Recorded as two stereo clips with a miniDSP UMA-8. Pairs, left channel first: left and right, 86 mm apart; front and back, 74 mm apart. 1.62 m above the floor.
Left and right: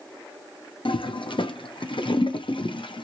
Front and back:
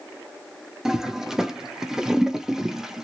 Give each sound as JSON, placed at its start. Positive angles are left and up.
{"t": 0.8, "sound": "a toilet flushing", "azimuth_deg": 100, "distance_m": 0.6}